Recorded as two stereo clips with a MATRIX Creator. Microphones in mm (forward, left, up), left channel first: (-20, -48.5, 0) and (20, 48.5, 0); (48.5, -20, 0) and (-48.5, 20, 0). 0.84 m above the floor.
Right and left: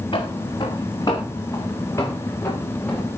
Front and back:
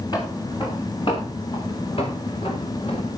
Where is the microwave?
I don't hear a microwave.